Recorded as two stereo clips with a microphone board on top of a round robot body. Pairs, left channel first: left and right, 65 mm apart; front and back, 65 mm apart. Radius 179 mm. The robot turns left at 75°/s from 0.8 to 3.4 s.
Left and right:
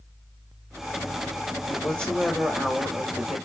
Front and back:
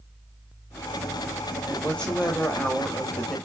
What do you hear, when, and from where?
1.7 s a woman speaking: 65° left, 1.2 m; by 3.4 s 60° right, 1.2 m